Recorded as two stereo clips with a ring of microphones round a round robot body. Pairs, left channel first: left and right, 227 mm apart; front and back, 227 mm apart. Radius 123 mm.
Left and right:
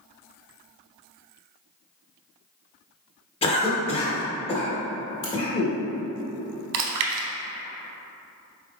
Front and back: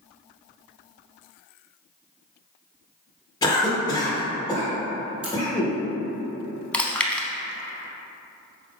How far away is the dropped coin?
I don't hear a dropped coin.